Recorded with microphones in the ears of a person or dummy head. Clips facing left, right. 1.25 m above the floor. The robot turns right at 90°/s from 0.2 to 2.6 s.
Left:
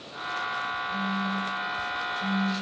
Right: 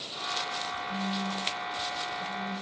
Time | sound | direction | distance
0.9 | a phone buzzing | 170° left | 1.5 m